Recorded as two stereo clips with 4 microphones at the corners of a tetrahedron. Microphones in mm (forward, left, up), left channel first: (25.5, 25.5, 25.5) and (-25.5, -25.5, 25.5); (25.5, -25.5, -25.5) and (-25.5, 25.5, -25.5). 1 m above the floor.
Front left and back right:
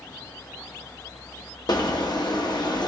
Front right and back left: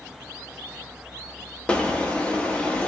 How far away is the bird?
About 1.1 m.